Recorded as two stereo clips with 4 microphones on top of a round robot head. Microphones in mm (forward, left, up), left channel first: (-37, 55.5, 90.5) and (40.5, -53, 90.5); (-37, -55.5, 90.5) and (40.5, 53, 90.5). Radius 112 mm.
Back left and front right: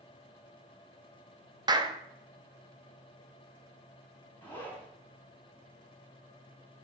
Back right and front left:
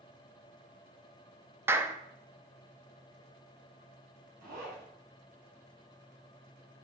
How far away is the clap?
About 1.0 m.